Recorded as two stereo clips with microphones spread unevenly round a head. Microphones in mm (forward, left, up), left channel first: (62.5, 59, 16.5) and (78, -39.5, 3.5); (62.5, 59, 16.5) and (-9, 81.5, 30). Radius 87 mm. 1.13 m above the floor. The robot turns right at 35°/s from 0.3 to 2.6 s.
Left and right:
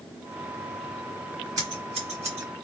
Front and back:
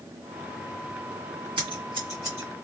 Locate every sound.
1.6 s scissors: 150° right, 1.7 m; by 2.5 s 120° right, 1.7 m